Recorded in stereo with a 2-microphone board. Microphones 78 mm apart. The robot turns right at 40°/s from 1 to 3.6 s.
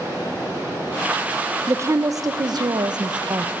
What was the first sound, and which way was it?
Running water, 40° right.